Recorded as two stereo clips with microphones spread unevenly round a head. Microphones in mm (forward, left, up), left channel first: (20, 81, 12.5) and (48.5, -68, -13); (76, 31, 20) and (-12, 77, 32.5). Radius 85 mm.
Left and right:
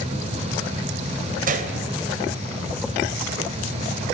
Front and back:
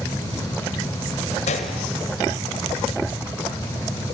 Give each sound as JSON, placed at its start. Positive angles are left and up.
{"t": 1.5, "sound": "a gunshot", "azimuth_deg": -45, "distance_m": 2.0}